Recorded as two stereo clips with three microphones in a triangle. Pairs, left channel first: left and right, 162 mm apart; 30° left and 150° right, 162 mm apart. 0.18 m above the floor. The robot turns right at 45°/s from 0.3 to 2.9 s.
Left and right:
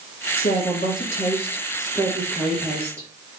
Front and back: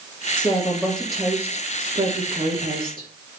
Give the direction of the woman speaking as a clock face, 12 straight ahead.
9 o'clock.